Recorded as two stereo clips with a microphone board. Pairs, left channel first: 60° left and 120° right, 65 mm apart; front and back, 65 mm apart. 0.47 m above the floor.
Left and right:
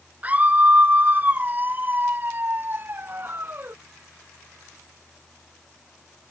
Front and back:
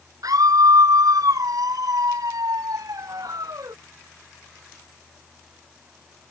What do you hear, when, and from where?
0.2 s a scream: 175° left; by 3.8 s 170° right